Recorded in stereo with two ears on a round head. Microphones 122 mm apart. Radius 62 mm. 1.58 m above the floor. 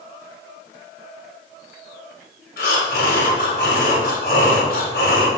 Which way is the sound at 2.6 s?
75° left (ahead or behind).